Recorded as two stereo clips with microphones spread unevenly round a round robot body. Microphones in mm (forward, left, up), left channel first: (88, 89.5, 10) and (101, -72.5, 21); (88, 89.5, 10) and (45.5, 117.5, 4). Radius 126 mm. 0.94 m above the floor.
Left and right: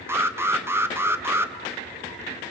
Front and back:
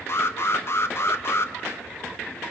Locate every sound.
0.1 s an alarm: 10° right, 1.1 m